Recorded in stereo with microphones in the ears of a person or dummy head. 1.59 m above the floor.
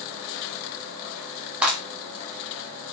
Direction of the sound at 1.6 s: 10° right (ahead or behind).